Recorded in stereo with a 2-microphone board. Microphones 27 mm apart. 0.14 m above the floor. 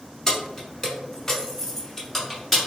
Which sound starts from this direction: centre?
Keys jangling, at 0.3 s.